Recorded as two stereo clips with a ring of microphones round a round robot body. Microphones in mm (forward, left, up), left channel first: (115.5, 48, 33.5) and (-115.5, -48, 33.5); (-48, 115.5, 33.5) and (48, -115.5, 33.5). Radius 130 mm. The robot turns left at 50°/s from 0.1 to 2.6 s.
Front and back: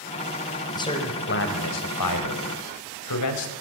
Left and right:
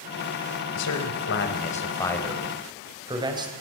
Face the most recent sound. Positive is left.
turn(degrees=5)